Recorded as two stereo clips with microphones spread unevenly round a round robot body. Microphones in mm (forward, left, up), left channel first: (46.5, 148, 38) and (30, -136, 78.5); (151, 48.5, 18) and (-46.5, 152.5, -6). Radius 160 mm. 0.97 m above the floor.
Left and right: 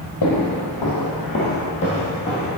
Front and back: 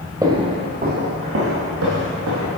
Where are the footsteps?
75° left, 1.7 m; by 2.5 s 170° left, 3 m.